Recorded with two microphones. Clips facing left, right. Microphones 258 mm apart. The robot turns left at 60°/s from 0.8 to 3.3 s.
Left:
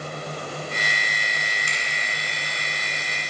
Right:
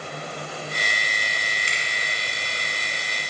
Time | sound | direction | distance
1.7 | a finger snap | 30° right (ahead or behind) | 1.4 m